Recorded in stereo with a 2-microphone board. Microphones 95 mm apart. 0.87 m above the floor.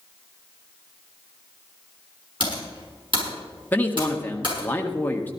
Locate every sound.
2.4 s typing on a keyboard: 60° right (ahead or behind), 6.5 m
3.7 s a man speaking: 20° left (ahead or behind), 1.5 m